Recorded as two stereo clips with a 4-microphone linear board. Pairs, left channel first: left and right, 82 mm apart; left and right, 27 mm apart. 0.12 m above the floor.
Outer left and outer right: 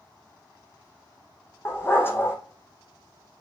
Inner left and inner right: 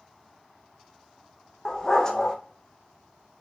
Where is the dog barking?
25° left (ahead or behind), 1.7 m.